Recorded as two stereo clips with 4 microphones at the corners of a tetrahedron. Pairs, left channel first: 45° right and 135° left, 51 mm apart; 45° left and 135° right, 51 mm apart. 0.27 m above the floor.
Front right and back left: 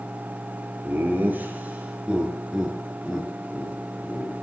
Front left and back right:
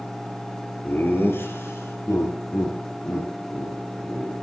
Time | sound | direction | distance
0.8 | laughter | 90° left | 3.5 m